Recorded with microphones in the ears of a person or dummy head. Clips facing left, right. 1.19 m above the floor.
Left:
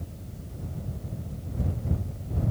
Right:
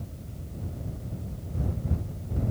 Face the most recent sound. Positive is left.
No sound to turn to.